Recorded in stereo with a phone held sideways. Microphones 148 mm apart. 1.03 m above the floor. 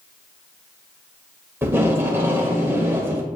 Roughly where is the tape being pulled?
Centre.